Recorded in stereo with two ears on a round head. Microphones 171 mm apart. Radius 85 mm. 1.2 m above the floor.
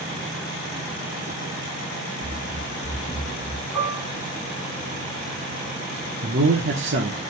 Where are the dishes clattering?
10° right (ahead or behind), 7.5 m.